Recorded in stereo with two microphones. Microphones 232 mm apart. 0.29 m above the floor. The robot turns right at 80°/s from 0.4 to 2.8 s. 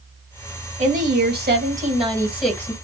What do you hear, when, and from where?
0.8 s a woman speaking: 135° right, 2 m; by 2.7 s 20° left, 2 m